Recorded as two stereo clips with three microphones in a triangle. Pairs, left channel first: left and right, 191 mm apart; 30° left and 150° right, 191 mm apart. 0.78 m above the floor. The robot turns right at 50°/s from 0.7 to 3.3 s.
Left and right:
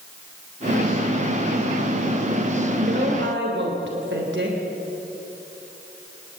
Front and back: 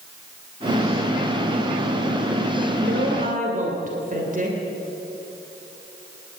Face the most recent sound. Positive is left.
turn(degrees=-105)